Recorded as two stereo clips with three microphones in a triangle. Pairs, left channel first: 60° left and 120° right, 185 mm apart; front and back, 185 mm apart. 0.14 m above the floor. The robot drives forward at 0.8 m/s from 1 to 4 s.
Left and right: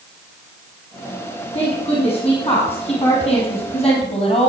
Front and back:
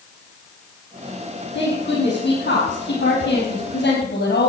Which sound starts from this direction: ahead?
A woman speaking, at 1.5 s.